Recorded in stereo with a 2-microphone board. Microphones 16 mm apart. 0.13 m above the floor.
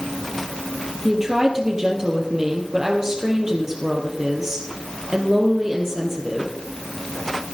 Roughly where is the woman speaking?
Right.